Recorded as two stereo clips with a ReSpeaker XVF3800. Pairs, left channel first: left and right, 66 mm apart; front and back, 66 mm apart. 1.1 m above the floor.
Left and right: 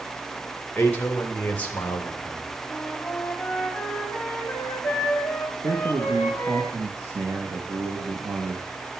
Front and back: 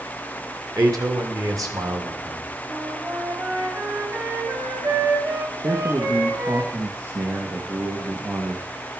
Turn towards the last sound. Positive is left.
turn(degrees=-135)